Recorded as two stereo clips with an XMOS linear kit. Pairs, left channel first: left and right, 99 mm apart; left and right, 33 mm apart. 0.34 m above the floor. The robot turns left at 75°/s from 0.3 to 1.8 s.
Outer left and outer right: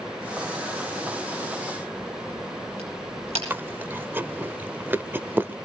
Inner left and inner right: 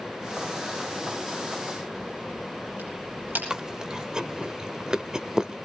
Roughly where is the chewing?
Right.